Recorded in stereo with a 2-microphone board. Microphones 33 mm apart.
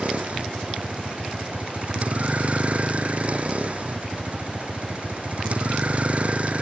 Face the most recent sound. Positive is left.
turn(degrees=-45)  # may be behind; listen again after turning